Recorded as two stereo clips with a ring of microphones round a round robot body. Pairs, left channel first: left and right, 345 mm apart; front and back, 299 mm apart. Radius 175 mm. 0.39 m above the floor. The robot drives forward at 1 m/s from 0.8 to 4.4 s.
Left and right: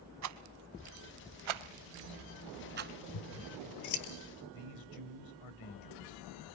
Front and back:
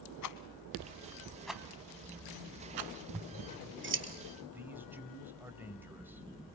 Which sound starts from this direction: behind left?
Scissors, at 3.1 s.